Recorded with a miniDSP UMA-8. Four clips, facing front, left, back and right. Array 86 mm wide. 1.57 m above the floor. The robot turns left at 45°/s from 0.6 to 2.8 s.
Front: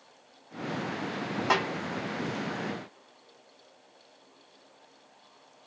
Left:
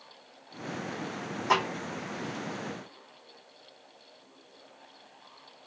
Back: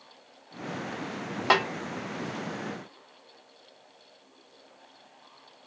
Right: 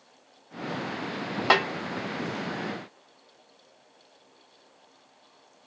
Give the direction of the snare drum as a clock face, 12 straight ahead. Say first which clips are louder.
Right 3 dB, back 4 dB; 4 o'clock.